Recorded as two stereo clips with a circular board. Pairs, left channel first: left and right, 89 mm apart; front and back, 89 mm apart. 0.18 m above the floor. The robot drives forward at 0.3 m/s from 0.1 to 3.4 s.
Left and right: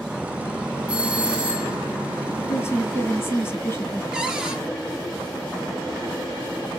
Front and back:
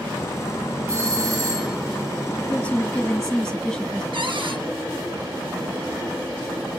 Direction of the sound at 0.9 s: 160° right.